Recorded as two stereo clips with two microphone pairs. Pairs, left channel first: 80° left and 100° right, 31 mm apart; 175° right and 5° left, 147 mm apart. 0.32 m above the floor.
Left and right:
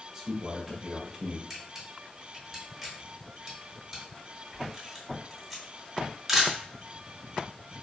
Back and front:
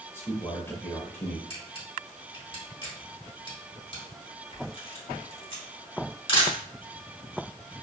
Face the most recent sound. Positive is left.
turn(degrees=170)